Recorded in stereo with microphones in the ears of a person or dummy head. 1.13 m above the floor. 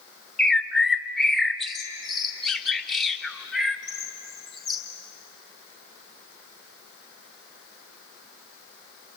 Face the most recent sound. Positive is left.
turn(degrees=-5)  # may be behind; listen again after turning